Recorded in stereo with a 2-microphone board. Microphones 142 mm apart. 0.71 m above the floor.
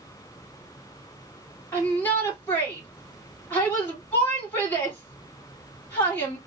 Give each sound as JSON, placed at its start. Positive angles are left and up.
{"t": 1.7, "sound": "a shout", "side_deg": 15, "distance_m": 1.9}